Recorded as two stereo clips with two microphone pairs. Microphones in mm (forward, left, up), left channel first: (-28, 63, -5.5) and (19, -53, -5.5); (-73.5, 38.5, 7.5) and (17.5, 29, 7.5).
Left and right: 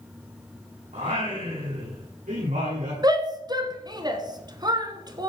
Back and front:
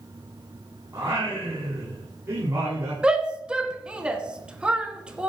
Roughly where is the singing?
Ahead right.